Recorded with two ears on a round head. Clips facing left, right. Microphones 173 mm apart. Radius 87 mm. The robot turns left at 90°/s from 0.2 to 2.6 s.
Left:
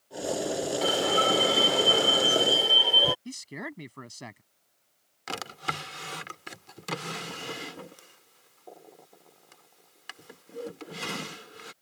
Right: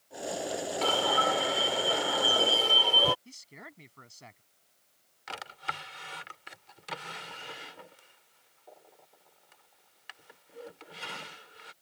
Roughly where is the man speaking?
Left.